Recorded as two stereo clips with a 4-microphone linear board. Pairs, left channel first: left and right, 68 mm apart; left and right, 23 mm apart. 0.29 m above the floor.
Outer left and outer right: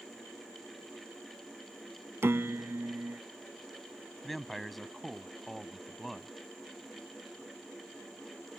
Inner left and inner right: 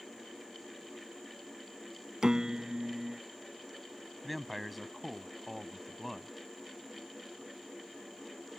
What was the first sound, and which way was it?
A piano, 40° right (ahead or behind).